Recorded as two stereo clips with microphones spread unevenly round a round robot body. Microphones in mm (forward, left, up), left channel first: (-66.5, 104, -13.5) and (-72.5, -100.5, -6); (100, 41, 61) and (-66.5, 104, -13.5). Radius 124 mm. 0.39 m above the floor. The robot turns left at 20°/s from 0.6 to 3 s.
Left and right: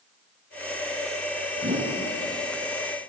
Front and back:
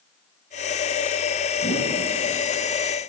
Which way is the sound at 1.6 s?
40° right.